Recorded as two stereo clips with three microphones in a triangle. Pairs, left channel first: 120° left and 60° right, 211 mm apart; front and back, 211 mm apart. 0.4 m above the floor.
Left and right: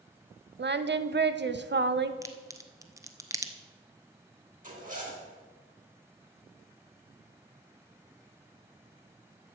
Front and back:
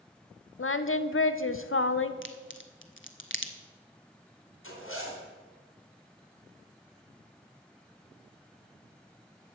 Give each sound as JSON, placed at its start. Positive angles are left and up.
{"t": 0.6, "sound": "singing", "azimuth_deg": -20, "distance_m": 0.6}
{"t": 2.2, "sound": "a crack", "azimuth_deg": 15, "distance_m": 0.9}
{"t": 4.6, "sound": "a zipper", "azimuth_deg": -10, "distance_m": 3.0}